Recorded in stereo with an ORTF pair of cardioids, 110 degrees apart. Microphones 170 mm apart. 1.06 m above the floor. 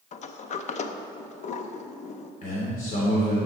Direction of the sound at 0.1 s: 45° left.